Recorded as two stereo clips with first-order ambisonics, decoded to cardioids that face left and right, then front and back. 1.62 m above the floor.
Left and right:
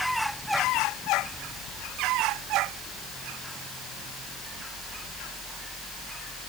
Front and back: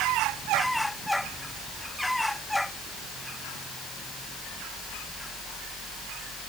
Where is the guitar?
No guitar in this recording.